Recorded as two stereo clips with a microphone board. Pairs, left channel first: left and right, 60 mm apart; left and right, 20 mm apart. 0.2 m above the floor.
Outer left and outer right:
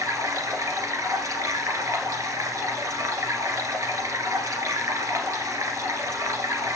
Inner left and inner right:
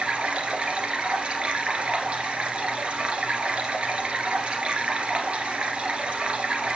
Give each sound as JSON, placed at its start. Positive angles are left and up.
{"t": 0.0, "sound": "running water", "side_deg": -70, "distance_m": 1.6}